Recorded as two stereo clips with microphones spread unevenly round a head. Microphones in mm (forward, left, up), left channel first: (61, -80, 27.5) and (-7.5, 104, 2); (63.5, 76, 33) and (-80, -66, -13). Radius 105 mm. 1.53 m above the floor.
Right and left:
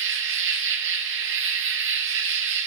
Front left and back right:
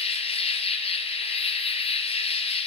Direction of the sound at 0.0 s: 95° left.